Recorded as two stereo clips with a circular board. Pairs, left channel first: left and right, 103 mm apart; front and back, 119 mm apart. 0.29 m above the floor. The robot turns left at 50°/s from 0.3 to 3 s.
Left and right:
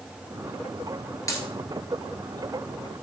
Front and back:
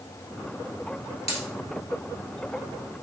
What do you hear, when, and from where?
1.3 s a dropped coin: 30° left, 1.0 m; by 1.5 s 25° left, 1.0 m